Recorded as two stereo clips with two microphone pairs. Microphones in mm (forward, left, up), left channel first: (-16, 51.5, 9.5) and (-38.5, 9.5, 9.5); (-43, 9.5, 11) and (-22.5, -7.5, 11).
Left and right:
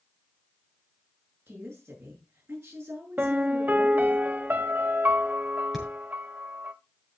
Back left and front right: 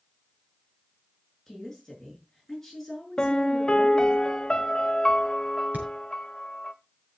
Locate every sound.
1.5 s a woman speaking: 135° right, 7 m
3.2 s a piano: 165° right, 0.8 m
5.7 s hammering: 30° right, 6 m